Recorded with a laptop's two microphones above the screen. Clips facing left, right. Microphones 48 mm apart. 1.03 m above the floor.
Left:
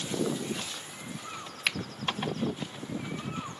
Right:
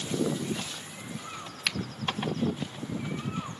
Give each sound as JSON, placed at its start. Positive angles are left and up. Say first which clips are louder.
{"t": 1.6, "sound": "a finger snap", "louder": "left 2 dB", "side_deg": 25, "distance_m": 1.1}